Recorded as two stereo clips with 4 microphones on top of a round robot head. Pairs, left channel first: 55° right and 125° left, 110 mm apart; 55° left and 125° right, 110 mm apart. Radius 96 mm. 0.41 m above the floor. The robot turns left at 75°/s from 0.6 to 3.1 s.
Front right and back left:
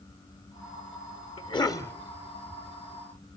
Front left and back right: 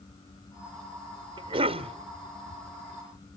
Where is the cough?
80° right, 1.3 m; by 1.9 s 125° right, 1.3 m.